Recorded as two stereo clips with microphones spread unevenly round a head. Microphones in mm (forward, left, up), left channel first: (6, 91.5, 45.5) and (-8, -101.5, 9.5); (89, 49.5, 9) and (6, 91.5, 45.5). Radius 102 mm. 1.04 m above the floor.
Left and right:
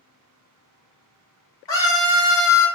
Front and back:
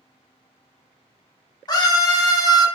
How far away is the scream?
About 1.3 m.